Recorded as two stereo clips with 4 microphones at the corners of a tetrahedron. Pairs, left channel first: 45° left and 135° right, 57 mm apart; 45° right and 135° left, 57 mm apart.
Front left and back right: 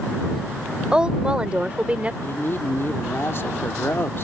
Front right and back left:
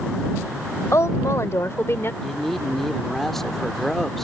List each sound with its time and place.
0.9 s a woman speaking: 60° right; by 2.1 s 75° right
2.2 s a man speaking: 40° left